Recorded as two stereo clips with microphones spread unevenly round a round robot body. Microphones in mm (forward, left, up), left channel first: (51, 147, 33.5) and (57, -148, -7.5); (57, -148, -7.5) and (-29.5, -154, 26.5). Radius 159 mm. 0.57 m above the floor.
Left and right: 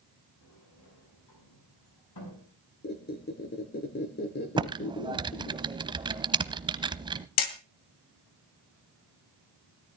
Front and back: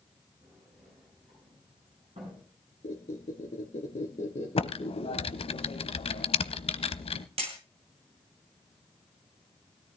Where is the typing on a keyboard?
10° right, 0.7 m.